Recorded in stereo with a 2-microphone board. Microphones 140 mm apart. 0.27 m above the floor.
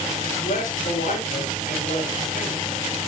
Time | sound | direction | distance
0.4 | a man speaking | 70° left (ahead or behind) | 3.5 m